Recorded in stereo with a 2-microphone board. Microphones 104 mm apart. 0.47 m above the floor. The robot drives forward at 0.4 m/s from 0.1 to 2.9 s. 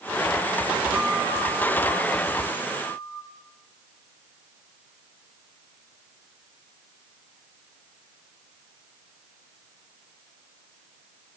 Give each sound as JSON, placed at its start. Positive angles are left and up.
{"t": 0.9, "sound": "a guitar", "side_deg": 25, "distance_m": 3.0}